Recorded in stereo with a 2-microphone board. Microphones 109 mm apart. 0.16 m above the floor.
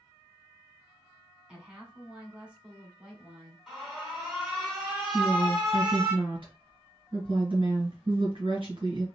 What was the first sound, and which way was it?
A woman speaking, 10° right (ahead or behind).